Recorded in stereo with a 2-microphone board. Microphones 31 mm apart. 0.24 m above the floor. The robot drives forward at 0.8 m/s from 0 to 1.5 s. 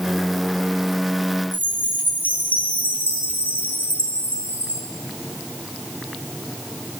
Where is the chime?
65° right (ahead or behind), 5 m.